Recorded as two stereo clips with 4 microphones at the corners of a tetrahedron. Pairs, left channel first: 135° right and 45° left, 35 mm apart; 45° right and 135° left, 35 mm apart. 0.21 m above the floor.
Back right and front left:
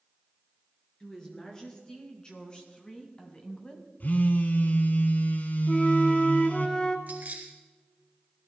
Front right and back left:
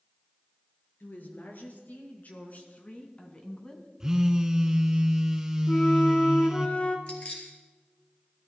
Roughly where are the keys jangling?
Ahead.